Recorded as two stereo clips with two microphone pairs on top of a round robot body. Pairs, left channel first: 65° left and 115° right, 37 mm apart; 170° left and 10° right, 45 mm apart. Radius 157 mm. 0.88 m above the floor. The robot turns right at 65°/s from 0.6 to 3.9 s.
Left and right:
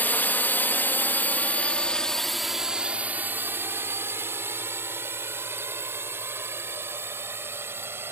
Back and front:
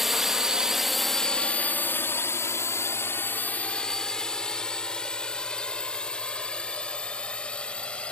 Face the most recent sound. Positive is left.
turn(degrees=-130)